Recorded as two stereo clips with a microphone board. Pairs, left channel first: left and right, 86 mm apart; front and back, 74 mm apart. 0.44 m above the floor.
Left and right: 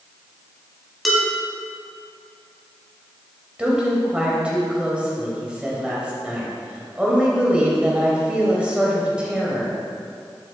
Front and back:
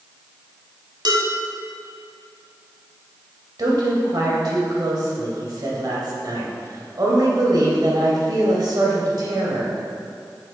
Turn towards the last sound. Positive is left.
turn(degrees=-165)